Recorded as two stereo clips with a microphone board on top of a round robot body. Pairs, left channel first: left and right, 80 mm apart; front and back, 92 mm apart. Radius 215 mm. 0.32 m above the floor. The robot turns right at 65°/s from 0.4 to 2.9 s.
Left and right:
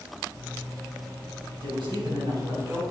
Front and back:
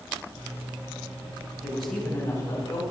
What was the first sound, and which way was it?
A man speaking, 105° right.